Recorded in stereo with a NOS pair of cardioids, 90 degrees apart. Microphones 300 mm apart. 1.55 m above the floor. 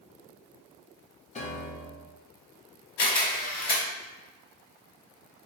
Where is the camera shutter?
60° left, 1.1 m.